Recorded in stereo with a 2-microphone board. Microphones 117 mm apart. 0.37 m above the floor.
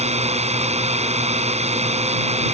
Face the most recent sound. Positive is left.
turn(degrees=-65)  # may be behind; listen again after turning